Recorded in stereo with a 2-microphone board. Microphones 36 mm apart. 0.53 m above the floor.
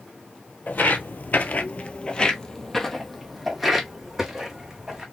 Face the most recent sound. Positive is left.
turn(degrees=-15)  # may be behind; listen again after turning